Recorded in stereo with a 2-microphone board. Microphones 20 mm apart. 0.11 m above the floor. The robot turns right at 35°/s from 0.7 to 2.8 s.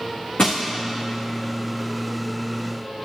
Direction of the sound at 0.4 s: 60° left (ahead or behind).